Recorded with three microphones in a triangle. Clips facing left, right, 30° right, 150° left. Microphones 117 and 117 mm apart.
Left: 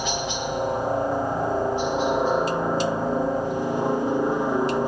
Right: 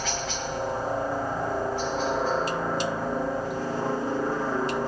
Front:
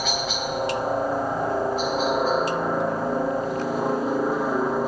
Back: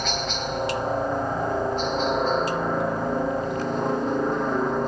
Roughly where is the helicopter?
Ahead left.